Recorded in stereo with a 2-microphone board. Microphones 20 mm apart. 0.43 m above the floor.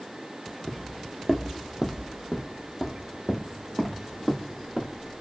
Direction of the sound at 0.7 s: 25° left (ahead or behind).